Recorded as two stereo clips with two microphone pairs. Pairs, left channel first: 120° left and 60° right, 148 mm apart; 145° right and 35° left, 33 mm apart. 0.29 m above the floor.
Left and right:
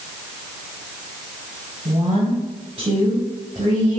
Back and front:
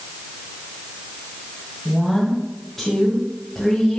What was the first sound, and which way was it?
A woman speaking, 75° right.